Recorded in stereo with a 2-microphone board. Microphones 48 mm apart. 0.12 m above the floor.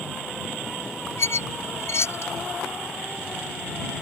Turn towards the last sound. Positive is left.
turn(degrees=60)  # may be behind; listen again after turning